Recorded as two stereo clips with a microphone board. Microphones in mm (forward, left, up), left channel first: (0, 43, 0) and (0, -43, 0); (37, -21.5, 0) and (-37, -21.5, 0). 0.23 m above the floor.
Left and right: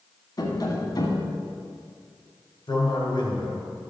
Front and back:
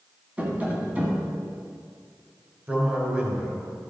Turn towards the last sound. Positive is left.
turn(degrees=115)